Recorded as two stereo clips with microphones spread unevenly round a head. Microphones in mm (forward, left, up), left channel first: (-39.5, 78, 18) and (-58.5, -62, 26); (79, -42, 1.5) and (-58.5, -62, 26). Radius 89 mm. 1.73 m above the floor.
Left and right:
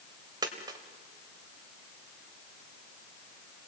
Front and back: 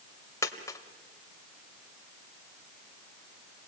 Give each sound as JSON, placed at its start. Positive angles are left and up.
{"t": 0.4, "sound": "a dropped coin", "azimuth_deg": -60, "distance_m": 1.7}